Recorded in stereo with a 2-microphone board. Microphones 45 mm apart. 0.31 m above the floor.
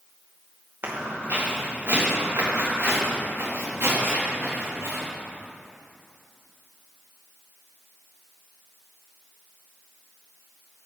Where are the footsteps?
50° right (ahead or behind), 3 m; by 5.0 s 80° right, 4.5 m.